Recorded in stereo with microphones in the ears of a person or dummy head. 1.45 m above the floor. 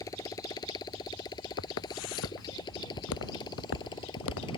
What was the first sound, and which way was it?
A motorcycle, 20° left (ahead or behind).